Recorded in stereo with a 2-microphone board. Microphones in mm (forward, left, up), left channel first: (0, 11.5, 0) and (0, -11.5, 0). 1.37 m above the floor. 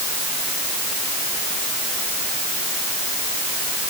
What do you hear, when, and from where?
Only background noise.